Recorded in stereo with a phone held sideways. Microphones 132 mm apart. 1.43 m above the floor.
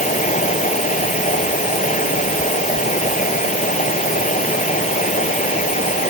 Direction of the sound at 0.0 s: 70° left (ahead or behind).